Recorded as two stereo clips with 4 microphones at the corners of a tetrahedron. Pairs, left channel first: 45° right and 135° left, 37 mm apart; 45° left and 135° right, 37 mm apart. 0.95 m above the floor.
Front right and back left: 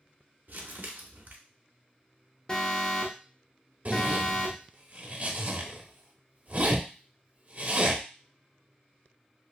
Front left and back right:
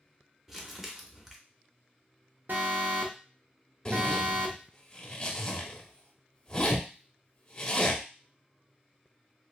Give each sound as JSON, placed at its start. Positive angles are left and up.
{"t": 0.5, "sound": "crumpling", "azimuth_deg": 150, "distance_m": 0.7}
{"t": 2.5, "sound": "an alarm", "azimuth_deg": -110, "distance_m": 0.7}
{"t": 3.9, "sound": "a zipper", "azimuth_deg": 105, "distance_m": 0.7}